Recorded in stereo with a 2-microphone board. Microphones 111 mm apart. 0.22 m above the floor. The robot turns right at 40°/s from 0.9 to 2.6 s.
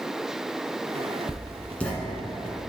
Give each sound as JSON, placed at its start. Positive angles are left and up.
{"t": 1.3, "sound": "writing", "side_deg": 30, "distance_m": 1.5}